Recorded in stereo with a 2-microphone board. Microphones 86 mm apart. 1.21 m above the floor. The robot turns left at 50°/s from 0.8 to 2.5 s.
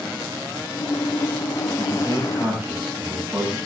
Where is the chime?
I don't hear a chime.